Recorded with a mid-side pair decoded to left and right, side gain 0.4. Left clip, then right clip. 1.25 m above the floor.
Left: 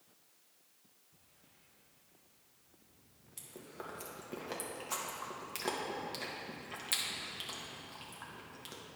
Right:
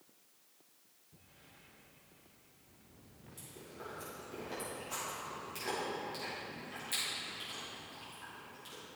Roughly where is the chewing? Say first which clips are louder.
Left 1 dB; ahead left.